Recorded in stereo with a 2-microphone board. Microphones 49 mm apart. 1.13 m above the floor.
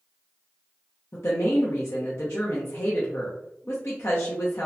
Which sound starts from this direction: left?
A woman speaking, at 1.1 s.